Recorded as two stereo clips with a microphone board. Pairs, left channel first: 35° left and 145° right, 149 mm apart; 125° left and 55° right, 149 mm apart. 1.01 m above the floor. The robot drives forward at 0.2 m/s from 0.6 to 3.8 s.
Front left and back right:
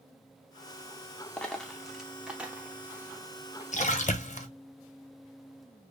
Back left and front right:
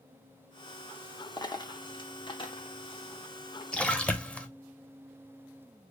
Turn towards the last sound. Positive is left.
turn(degrees=45)